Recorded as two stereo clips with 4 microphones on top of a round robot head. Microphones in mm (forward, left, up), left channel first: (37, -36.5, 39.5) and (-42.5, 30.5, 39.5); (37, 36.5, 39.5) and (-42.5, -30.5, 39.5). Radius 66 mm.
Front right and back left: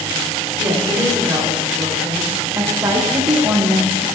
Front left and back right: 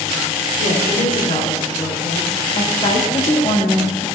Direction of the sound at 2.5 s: 75° left.